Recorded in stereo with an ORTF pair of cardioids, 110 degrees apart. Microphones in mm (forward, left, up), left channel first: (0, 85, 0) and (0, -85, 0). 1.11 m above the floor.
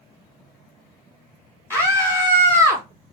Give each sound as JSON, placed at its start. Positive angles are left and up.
{"t": 1.7, "sound": "a scream", "azimuth_deg": 10, "distance_m": 2.0}